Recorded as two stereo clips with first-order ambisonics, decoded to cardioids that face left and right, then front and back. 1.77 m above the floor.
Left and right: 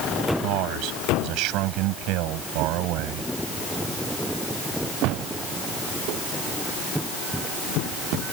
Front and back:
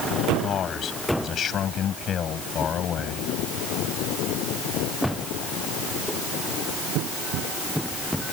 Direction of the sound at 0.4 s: 60° right.